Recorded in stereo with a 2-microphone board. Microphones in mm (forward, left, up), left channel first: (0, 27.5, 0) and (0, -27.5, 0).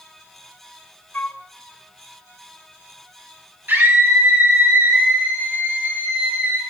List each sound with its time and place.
1.1 s a flute: 35° left (ahead or behind), 0.7 m
3.7 s a scream: 40° right (ahead or behind), 1.8 m